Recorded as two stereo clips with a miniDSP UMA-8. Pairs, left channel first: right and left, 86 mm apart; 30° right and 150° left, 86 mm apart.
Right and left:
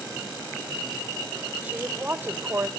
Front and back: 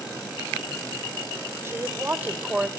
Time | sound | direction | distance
1.6 | a woman speaking | 145° left | 1.1 m